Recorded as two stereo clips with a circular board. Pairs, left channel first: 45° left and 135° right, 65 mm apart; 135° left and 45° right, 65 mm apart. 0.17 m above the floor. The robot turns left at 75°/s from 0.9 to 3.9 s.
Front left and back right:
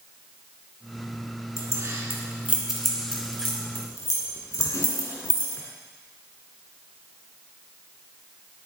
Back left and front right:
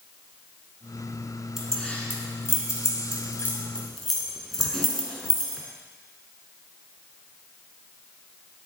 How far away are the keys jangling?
About 1.4 m.